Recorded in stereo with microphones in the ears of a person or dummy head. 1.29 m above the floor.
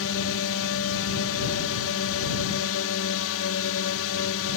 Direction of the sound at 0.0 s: 75° left (ahead or behind).